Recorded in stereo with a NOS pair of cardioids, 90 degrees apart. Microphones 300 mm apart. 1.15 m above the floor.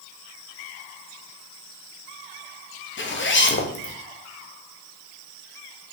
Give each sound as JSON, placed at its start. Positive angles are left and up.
{"t": 3.0, "sound": "a zipper", "azimuth_deg": 40, "distance_m": 1.9}